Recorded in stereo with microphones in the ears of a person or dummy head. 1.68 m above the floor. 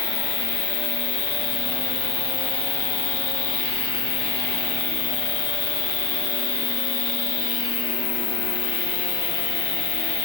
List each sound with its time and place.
0.0 s an insect: 25° left (ahead or behind), 0.8 m